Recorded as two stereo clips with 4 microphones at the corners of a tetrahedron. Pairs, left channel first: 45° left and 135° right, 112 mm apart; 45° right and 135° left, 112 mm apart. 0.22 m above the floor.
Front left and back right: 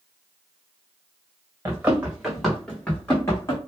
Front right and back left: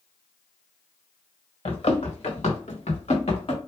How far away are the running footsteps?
About 1.4 m.